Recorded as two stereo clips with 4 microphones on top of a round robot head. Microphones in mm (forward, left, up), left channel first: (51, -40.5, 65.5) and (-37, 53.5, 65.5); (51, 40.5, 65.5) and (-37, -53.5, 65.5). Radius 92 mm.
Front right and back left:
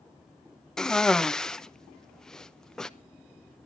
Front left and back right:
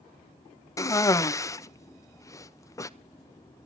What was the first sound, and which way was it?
A cough, 35° left.